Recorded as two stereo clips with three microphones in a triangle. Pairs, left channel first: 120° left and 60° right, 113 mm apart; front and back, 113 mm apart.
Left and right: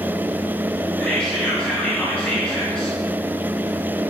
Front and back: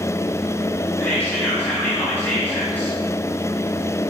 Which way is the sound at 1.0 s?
50° left.